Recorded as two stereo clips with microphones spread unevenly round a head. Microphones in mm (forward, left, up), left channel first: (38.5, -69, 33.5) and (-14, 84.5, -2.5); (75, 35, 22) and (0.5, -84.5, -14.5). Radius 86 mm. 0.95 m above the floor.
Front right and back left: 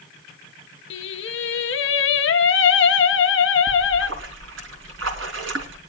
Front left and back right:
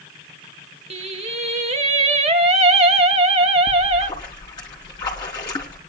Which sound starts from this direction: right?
Singing, at 0.9 s.